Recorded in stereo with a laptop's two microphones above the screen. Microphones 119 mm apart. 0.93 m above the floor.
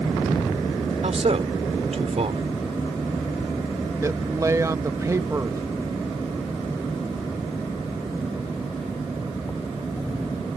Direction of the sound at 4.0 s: 25° right (ahead or behind).